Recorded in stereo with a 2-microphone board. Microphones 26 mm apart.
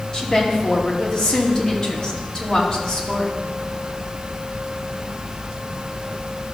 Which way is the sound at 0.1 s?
20° left (ahead or behind).